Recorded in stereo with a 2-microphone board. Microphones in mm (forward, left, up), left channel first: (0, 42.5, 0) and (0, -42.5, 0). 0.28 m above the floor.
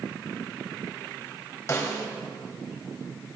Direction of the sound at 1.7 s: 35° left (ahead or behind).